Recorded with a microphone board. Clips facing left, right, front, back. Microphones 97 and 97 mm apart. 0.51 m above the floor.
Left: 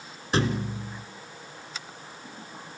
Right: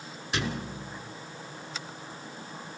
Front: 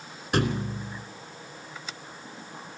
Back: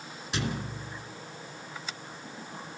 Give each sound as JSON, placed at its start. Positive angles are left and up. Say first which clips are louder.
{"t": 0.3, "sound": "a thud", "louder": "left 6 dB, front 7 dB", "azimuth_deg": 40, "distance_m": 2.5}